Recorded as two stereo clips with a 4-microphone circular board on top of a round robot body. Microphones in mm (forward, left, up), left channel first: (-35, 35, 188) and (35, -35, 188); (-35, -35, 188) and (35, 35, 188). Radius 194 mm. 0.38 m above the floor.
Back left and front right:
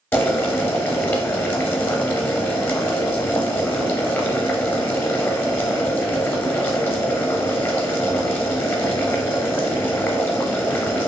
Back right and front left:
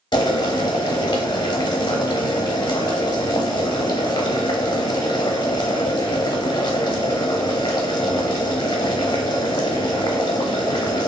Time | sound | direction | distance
0.1 | boiling | 160° right | 0.8 m